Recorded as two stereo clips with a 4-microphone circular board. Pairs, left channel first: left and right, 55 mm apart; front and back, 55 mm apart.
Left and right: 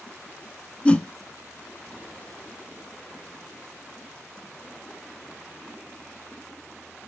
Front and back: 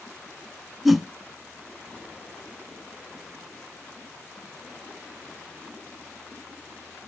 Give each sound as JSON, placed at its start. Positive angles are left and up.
{"t": 0.8, "sound": "a whoosh", "azimuth_deg": 95, "distance_m": 0.7}